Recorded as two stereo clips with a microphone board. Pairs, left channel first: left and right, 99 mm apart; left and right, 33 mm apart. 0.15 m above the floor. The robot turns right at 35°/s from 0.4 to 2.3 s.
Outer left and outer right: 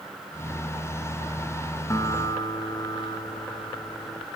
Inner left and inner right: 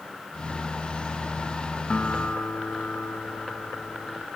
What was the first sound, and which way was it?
A guitar, 30° left (ahead or behind).